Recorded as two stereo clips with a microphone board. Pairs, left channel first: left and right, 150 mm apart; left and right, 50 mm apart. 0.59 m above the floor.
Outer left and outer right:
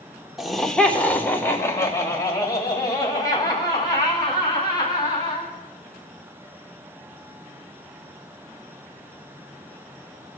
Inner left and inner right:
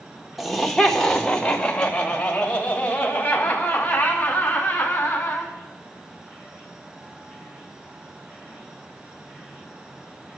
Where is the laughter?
Centre (ahead or behind), 1.2 m; by 5.5 s 30° left (ahead or behind), 5 m.